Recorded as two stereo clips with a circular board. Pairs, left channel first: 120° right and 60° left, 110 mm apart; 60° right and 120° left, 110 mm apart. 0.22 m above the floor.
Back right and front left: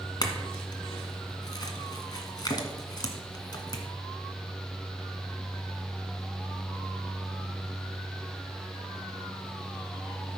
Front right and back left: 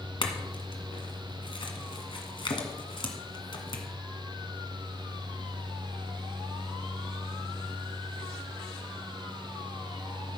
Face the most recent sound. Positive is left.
turn(degrees=-80)